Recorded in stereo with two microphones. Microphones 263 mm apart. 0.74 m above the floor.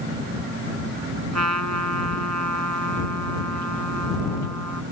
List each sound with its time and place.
1.3 s a trumpet: 85° right